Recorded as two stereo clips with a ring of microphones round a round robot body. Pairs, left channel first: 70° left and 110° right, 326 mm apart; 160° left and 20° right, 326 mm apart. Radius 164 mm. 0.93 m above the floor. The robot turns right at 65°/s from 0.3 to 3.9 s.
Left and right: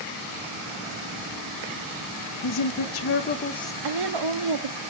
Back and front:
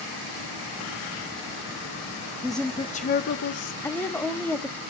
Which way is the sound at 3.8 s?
120° right.